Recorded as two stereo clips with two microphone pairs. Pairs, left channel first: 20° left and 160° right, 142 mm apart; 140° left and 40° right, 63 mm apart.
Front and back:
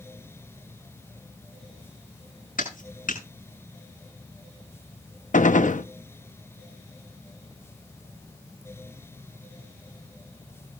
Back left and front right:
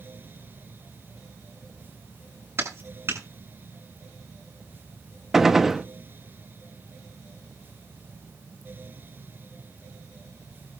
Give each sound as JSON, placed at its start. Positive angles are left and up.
{"t": 2.6, "sound": "a clap", "azimuth_deg": 5, "distance_m": 7.0}
{"t": 5.3, "sound": "a gunshot", "azimuth_deg": 40, "distance_m": 0.8}